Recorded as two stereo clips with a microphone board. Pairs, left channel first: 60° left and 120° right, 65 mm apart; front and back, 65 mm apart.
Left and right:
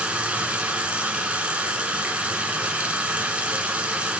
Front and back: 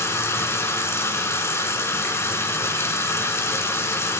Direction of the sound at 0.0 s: 50° right.